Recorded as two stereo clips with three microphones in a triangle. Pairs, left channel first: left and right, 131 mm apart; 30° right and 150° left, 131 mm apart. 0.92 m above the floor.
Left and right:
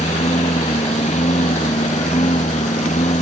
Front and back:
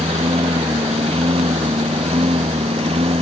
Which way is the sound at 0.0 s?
110° left.